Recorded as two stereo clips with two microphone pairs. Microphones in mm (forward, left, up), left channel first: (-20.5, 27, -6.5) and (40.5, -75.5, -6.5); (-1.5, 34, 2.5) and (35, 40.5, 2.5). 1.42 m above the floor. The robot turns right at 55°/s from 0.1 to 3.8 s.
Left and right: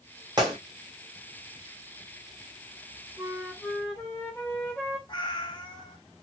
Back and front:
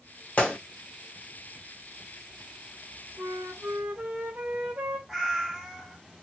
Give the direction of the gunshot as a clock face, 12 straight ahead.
4 o'clock.